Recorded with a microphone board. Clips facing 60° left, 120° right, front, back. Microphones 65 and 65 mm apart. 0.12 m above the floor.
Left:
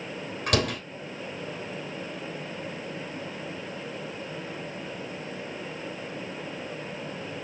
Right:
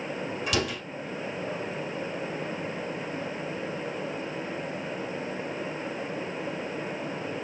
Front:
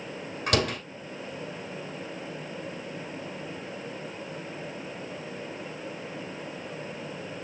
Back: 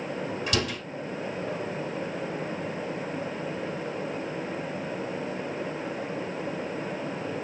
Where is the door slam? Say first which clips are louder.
Left 4 dB, front 5 dB; 30° left, 2.5 m.